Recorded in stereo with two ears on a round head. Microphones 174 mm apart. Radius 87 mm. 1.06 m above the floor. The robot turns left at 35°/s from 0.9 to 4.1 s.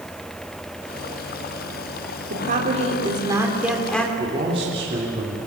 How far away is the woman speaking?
About 3.5 m.